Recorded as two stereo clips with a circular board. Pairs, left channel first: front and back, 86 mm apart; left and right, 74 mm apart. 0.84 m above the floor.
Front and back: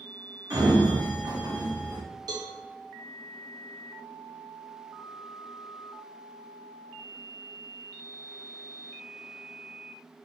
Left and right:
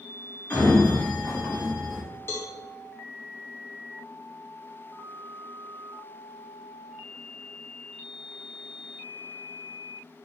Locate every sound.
0.5 s a sliding door: 155° left, 1.1 m
2.3 s a cowbell: 145° left, 0.7 m